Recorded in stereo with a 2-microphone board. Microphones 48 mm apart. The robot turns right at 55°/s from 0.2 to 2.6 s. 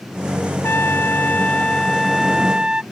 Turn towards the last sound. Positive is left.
turn(degrees=-155)